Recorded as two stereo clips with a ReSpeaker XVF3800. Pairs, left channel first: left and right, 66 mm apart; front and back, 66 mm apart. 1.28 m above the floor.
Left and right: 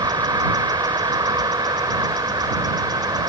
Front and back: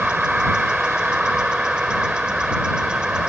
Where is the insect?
105° right.